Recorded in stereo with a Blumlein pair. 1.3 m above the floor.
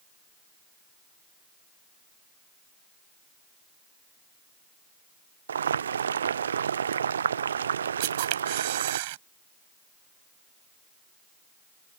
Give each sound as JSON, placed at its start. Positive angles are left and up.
{"t": 5.5, "sound": "boiling", "azimuth_deg": -70}
{"t": 8.0, "sound": "a camera shutter", "azimuth_deg": -50}